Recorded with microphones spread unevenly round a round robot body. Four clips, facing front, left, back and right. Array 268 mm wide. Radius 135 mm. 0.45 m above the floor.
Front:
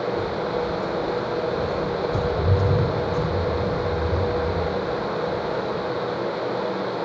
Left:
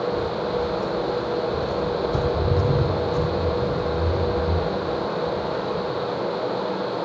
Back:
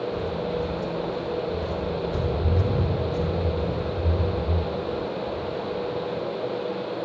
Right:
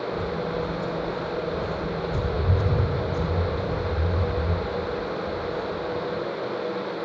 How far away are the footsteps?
About 5.5 m.